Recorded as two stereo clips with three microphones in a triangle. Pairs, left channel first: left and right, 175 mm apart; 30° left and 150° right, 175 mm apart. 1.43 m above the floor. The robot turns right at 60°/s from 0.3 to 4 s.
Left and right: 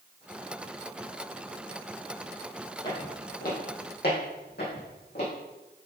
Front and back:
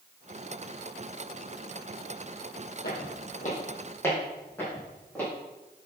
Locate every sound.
2.8 s footsteps: 25° left, 3 m; by 5.3 s 110° left, 4.5 m